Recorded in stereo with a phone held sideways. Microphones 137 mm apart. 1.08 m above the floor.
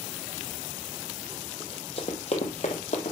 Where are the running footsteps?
40° left (ahead or behind), 1.6 m; by 3.1 s 55° left (ahead or behind), 1.9 m.